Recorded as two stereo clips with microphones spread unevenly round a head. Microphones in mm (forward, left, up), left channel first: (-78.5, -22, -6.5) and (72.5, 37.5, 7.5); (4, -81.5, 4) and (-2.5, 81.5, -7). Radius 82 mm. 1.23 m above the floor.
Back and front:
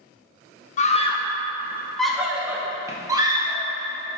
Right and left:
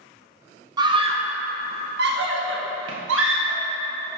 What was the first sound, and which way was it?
A scream, 155° left.